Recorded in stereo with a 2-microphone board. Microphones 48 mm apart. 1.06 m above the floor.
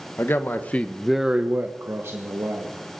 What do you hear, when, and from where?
0.2 s a man speaking: 55° left (ahead or behind), 1.2 m; by 2.7 s 70° right (ahead or behind), 1.8 m